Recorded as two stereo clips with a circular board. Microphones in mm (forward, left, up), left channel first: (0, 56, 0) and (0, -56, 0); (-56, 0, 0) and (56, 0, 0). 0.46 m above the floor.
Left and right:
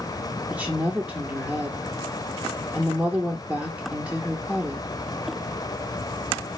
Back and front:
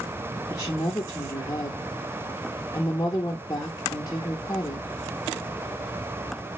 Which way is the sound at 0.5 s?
160° right.